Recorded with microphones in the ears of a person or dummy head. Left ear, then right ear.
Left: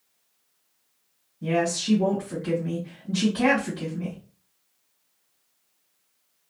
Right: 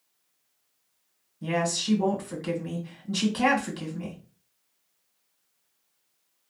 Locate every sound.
1.4 s a woman speaking: 50° right (ahead or behind), 1.6 m